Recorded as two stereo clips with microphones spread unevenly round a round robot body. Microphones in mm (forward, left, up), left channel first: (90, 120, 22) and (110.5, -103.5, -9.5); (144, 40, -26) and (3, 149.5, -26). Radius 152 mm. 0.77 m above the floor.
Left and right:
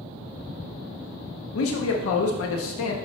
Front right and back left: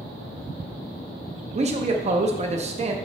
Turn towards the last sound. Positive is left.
turn(degrees=95)